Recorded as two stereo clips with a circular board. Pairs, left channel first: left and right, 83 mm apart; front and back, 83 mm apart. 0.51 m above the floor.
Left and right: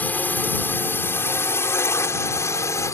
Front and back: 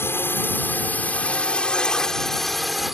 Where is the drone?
35° left; by 2.9 s 95° left.